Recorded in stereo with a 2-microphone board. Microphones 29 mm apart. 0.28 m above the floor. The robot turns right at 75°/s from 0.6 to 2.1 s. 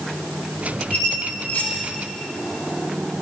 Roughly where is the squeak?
Left.